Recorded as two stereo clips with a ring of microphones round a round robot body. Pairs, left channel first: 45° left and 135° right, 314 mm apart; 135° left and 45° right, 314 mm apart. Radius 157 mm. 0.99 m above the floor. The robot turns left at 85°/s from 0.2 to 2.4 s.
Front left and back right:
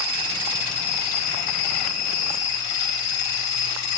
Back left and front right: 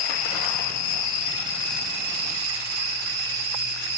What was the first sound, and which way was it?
An insect, 175° left.